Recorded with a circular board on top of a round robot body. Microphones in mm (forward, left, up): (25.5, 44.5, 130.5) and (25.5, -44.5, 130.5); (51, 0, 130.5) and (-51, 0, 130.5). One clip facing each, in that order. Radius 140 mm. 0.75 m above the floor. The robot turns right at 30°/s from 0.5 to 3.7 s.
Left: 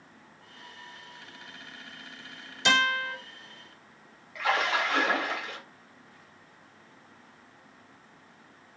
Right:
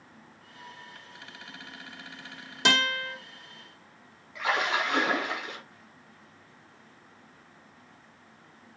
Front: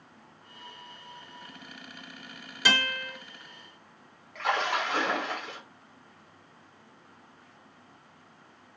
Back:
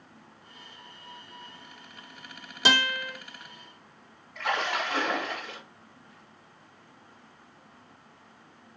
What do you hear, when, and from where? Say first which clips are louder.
2.6 s a guitar: left 2 dB, back 3 dB; 115° right, 1.5 m; by 3.1 s 100° right, 1.5 m
4.3 s a splash: left 1 dB, front 1 dB; 20° right, 2 m